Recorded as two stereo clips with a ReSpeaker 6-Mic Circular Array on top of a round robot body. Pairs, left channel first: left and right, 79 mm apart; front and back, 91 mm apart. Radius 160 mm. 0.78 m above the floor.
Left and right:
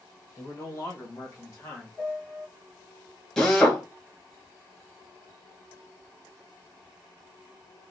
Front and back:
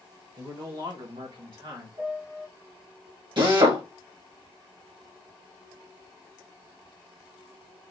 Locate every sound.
0.4 s a man speaking: 140° left, 1.3 m; by 1.9 s 150° left, 2.5 m
2.0 s a piano: 160° left, 2.5 m
3.4 s a drill: 175° left, 1.5 m